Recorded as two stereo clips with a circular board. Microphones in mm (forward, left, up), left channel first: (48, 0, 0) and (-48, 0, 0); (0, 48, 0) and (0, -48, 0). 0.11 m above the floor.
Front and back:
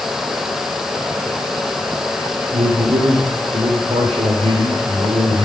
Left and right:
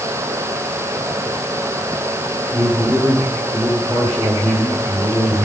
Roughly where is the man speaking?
Behind.